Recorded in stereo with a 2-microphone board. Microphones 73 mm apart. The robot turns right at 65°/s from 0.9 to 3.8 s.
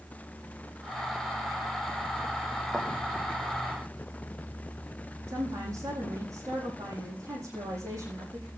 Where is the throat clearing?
I don't hear throat clearing.